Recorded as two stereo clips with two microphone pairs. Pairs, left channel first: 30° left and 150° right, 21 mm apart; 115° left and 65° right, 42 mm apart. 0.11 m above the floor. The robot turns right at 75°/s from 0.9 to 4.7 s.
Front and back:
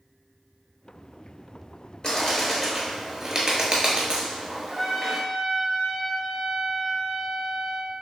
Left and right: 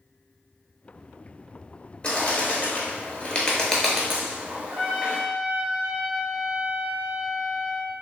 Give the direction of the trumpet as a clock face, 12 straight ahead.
8 o'clock.